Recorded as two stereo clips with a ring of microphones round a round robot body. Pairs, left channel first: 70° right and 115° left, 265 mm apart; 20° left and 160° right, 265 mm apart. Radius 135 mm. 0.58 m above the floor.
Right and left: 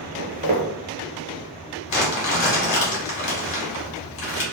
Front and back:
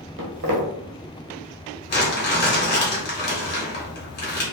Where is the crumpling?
30° right, 1.3 m.